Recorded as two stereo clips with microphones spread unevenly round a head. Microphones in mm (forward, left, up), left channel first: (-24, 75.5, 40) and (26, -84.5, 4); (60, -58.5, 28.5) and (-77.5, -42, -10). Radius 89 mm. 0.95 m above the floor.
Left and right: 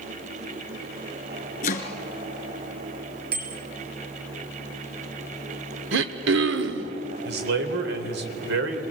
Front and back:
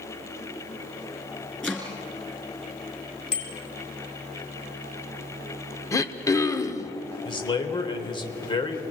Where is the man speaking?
65° right, 3.5 m.